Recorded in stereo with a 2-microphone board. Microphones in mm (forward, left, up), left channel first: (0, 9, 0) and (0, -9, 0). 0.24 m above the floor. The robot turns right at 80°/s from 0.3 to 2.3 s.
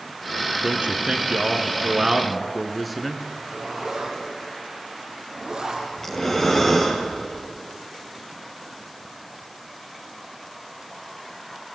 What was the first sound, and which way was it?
A man speaking, 130° right.